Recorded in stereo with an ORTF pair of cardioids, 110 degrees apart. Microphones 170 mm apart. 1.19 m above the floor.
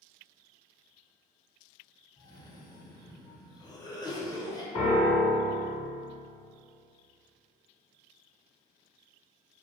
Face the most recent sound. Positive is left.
turn(degrees=30)